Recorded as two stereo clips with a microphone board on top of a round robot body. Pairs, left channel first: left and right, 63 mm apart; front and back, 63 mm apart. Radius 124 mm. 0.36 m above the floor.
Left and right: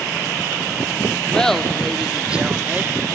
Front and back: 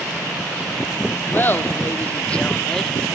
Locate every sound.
1.3 s laughter: 20° left, 1.1 m; by 3.0 s 85° right, 1.0 m